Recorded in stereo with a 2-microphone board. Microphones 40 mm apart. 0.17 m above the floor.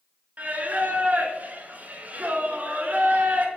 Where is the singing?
40° right (ahead or behind), 0.6 m.